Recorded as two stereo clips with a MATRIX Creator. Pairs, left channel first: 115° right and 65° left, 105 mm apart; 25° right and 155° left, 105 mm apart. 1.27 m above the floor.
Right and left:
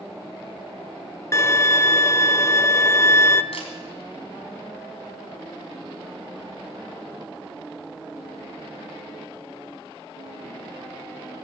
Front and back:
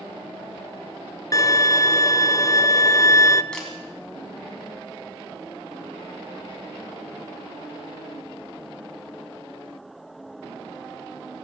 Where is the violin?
60° right, 0.5 m.